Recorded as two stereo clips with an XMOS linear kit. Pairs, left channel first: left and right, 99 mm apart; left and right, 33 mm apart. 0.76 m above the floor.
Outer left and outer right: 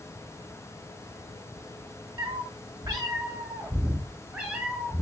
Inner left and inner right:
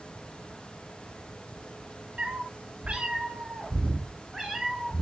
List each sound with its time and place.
2.2 s a cat meowing: 60° right (ahead or behind), 0.7 m; by 5.0 s 10° right (ahead or behind), 1.6 m